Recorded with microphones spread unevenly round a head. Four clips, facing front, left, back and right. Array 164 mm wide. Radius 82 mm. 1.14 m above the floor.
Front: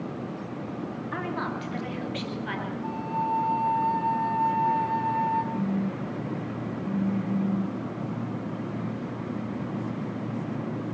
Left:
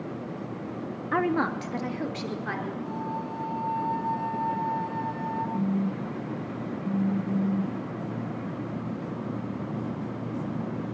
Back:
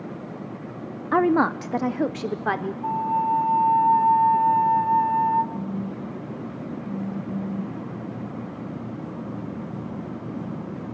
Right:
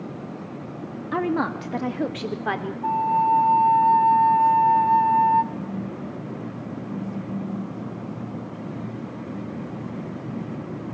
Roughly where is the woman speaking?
Behind.